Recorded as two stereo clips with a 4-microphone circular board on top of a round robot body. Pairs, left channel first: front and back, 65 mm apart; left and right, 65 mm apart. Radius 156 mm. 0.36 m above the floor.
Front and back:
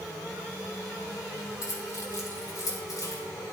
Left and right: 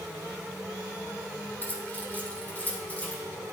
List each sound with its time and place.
1.6 s keys jangling: 30° left, 3.5 m; by 3.2 s 25° left, 5 m